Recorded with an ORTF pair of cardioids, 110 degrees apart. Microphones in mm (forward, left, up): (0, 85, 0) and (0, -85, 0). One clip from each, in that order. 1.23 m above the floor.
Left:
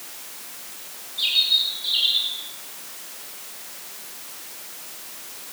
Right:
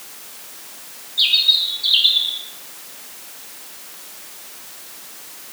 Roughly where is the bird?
Ahead right.